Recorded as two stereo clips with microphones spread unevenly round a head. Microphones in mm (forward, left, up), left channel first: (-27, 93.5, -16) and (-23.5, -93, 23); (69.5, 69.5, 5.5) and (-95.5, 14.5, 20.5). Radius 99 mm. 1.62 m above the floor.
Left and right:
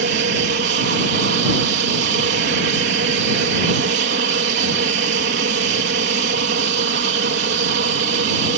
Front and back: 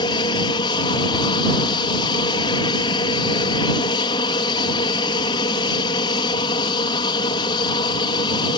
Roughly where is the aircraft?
Ahead right.